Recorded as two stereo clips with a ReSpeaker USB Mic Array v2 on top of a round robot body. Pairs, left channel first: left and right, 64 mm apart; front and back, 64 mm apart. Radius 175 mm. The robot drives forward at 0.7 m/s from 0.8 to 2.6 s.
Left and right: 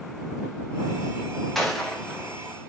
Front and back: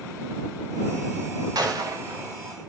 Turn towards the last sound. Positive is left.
turn(degrees=175)